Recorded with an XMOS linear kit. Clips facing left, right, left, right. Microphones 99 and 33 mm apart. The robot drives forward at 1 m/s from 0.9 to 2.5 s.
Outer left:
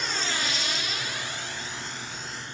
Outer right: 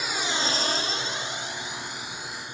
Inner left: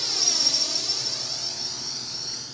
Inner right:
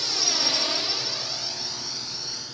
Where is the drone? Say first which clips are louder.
Outer right 2 dB, inner right 1 dB; 5° right (ahead or behind); by 2.5 s 15° right (ahead or behind).